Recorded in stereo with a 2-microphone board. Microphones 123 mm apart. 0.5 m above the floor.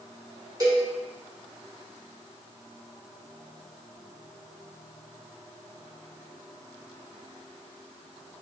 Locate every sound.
0.6 s a cowbell: 30° right (ahead or behind), 0.9 m